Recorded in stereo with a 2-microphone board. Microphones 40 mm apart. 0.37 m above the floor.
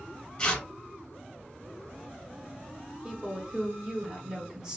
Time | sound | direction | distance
0.4 | tearing paper | 20° left (ahead or behind) | 1.2 m
3.0 | a woman speaking | 15° right (ahead or behind) | 0.9 m